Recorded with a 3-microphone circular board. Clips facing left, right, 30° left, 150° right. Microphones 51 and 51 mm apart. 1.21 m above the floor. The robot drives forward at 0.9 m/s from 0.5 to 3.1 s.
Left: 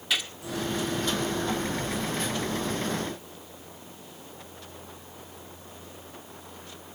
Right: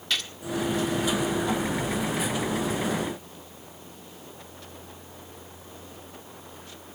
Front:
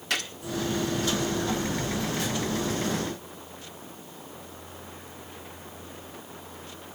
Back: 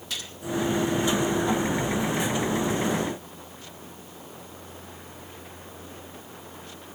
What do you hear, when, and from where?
0.1 s a gunshot: 10° left, 1.5 m